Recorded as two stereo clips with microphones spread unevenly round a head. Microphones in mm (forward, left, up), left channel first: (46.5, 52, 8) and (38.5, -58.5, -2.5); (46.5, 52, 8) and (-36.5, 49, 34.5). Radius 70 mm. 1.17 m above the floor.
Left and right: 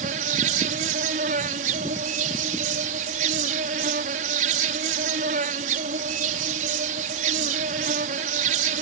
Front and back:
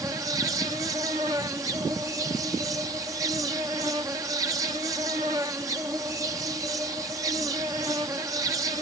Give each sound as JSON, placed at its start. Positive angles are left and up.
{"t": 0.0, "sound": "an insect", "azimuth_deg": -110}